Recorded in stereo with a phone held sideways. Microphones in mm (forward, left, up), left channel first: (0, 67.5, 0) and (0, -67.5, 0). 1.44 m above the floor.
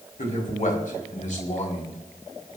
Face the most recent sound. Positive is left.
turn(degrees=60)  # may be behind; listen again after turning